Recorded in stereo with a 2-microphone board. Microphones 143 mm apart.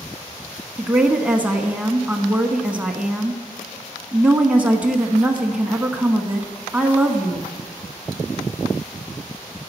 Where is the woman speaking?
10° right (ahead or behind), 1.1 m.